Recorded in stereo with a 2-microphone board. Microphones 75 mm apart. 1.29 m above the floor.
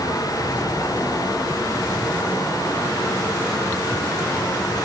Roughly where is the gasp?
No gasp in this recording.